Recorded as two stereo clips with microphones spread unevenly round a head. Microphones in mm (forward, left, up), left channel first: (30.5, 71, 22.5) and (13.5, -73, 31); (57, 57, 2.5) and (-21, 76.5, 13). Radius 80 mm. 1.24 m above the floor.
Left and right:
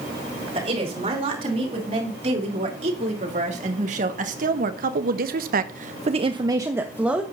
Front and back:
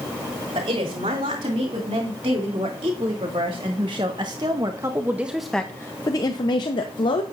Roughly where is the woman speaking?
Behind right.